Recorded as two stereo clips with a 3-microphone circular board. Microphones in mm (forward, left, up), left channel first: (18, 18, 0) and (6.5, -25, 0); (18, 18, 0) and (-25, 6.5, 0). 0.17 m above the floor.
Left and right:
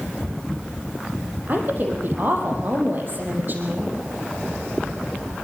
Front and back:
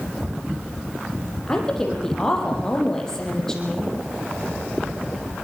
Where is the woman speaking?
65° right, 5.5 m.